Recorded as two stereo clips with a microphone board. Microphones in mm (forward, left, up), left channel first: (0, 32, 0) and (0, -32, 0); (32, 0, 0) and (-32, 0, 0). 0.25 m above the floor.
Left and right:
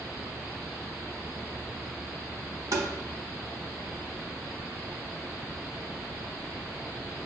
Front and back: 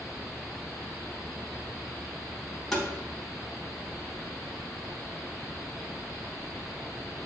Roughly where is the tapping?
Right.